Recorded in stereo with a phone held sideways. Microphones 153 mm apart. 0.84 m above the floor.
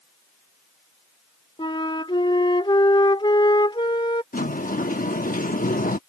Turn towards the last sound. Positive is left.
turn(degrees=65)  # may be behind; listen again after turning